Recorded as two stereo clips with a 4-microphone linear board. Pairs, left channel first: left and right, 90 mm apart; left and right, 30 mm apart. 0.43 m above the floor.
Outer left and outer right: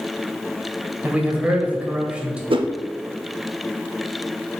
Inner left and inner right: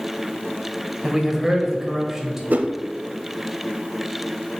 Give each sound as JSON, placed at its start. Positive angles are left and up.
{"t": 1.0, "sound": "a man speaking", "side_deg": -15, "distance_m": 1.5}
{"t": 2.5, "sound": "a whoosh", "side_deg": -70, "distance_m": 0.5}